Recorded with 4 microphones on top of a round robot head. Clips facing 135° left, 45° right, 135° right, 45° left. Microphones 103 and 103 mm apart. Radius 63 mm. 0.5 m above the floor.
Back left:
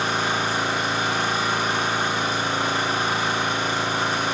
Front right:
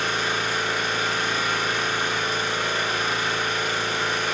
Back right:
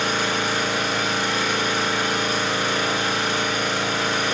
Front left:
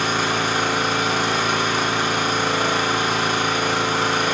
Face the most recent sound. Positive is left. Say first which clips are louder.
# back left 2 dB, front left 2 dB
turn(degrees=75)